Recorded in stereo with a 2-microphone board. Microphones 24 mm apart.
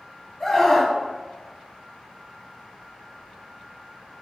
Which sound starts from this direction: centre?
A scream, at 0.4 s.